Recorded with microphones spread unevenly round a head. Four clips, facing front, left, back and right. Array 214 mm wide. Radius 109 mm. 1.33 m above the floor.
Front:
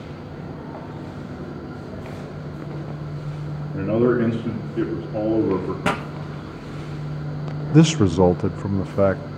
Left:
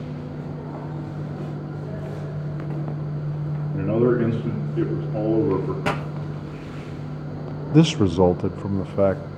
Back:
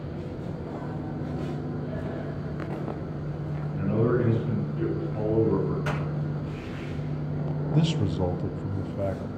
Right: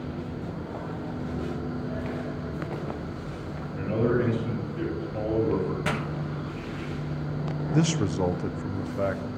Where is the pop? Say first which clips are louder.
Left 4 dB, front 7 dB; 20° left, 1.6 m.